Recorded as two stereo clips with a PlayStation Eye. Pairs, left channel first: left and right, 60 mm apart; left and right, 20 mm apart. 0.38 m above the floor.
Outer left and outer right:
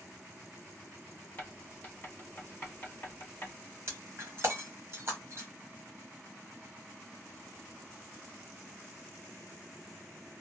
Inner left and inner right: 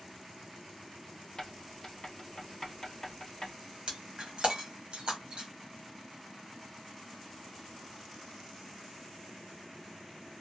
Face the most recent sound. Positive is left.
turn(degrees=-40)  # may be behind; listen again after turning